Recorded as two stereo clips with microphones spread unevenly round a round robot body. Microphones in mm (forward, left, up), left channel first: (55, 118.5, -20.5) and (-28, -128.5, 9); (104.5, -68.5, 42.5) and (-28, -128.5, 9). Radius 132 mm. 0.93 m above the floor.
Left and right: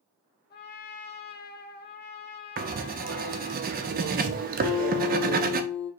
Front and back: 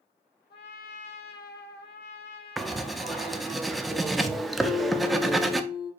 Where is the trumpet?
20° left, 0.7 m.